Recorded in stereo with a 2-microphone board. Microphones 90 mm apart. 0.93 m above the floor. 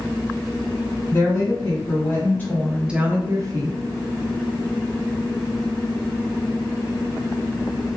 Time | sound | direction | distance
1.1 | a woman speaking | 45° left (ahead or behind) | 1.5 m